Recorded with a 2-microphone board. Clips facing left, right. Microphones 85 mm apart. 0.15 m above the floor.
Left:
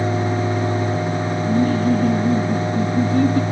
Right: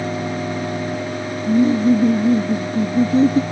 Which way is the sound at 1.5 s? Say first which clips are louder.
Right 4 dB; 20° right (ahead or behind).